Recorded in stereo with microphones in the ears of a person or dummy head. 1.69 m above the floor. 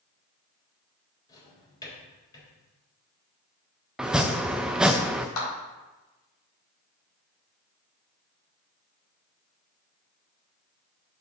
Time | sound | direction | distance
1.3 | a drawer | 25° left (ahead or behind) | 4 m
4.0 | chopping | centre (ahead or behind) | 0.5 m
5.4 | a clap | 85° left | 4 m